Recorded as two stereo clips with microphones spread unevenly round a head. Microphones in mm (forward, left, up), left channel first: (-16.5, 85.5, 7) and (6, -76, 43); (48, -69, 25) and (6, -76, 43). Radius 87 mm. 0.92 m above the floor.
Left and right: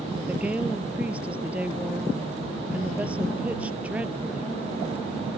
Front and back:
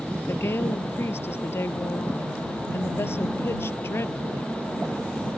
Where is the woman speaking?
Straight ahead.